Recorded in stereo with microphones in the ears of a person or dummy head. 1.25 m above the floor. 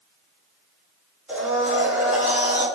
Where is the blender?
5° right (ahead or behind), 0.8 m.